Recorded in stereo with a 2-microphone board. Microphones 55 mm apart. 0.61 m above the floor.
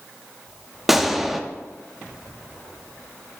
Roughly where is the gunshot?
Centre.